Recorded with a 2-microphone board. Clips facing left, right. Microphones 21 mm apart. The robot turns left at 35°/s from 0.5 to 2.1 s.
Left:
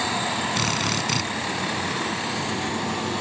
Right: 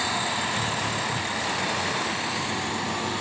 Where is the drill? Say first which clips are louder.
Left 3 dB; 80° left; by 1.3 s 70° left (ahead or behind).